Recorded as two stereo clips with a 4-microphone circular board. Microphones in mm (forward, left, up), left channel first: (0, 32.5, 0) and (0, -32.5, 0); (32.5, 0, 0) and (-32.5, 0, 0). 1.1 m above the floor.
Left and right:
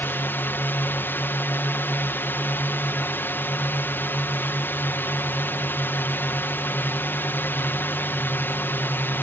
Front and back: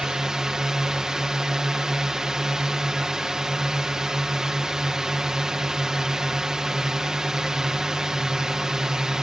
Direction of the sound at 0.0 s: 105° left.